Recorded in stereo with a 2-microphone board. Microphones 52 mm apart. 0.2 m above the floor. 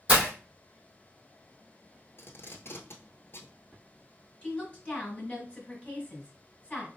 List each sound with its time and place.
0.1 s breaking glass: 25° right (ahead or behind), 1.6 m
2.2 s tape being pulled: 55° left (ahead or behind), 0.9 m
4.4 s a woman speaking: 25° left (ahead or behind), 1.6 m